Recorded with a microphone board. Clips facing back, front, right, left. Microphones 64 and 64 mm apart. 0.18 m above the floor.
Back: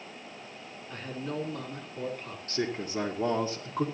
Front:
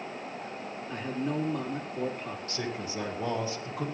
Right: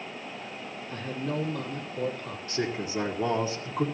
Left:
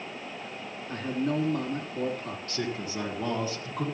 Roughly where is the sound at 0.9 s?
Left.